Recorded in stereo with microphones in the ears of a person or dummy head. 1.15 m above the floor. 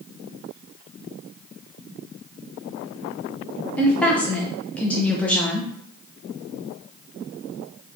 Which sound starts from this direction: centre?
A woman speaking, at 3.8 s.